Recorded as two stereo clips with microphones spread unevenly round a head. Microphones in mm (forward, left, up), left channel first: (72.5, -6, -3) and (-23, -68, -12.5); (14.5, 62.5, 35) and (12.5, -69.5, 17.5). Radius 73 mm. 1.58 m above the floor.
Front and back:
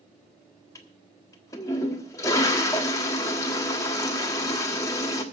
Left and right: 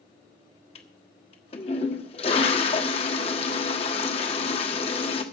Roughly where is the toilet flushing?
Left.